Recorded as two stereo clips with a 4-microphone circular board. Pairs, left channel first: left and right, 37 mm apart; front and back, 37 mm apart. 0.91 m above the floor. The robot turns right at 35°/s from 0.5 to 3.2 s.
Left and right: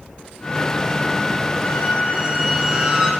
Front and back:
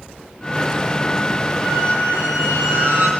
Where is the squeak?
150° left, 2 m; by 3.1 s 155° right, 2 m.